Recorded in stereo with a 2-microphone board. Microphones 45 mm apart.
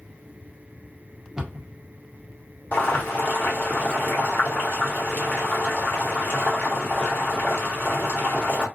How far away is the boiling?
About 1.1 m.